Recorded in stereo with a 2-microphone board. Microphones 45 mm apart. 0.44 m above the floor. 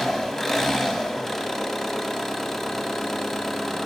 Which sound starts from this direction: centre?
An engine running, at 0.0 s.